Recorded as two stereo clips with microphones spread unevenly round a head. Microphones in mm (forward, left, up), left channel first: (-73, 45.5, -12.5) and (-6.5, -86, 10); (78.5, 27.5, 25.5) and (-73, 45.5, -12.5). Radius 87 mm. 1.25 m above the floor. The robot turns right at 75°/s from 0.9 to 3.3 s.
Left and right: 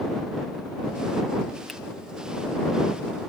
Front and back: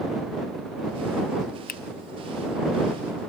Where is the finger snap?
30° left; by 1.8 s 35° left.